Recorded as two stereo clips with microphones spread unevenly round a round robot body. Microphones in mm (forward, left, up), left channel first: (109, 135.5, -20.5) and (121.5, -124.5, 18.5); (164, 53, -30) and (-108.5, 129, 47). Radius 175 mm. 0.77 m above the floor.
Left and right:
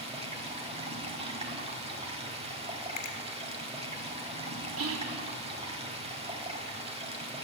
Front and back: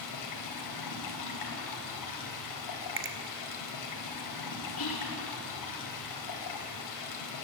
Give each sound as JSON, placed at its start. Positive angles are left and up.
{"t": 0.0, "sound": "running water", "azimuth_deg": -20, "distance_m": 3.5}
{"t": 3.0, "sound": "a finger snap", "azimuth_deg": 115, "distance_m": 2.0}
{"t": 4.8, "sound": "whispering", "azimuth_deg": -55, "distance_m": 1.6}